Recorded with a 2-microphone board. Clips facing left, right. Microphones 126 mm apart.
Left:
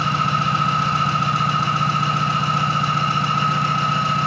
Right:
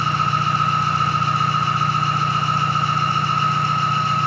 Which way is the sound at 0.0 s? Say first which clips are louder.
Even; 65° left (ahead or behind).